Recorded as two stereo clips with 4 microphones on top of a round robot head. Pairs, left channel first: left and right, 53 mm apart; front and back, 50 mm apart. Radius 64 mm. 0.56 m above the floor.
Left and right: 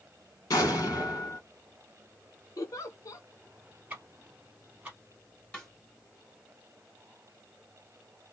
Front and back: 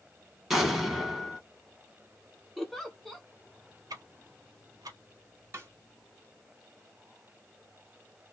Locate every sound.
0.5 s an explosion: 100° left, 1.5 m
2.6 s a giggle: 90° left, 0.8 m
3.9 s ticking: 165° right, 0.7 m
5.5 s a snare drum: 155° left, 1.7 m